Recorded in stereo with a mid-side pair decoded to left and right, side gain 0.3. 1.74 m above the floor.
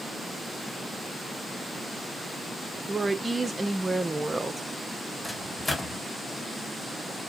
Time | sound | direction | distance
2.9 | a woman speaking | 30° right | 0.9 m
5.2 | a microwave | 30° left | 1.5 m